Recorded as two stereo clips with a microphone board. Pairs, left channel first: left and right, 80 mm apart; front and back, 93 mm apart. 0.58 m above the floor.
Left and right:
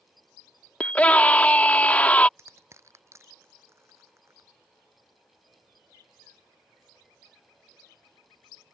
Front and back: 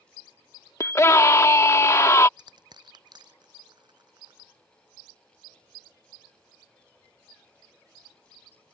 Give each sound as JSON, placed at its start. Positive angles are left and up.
{"t": 0.8, "sound": "a scream", "azimuth_deg": 30}
{"t": 2.4, "sound": "crushing", "azimuth_deg": -145}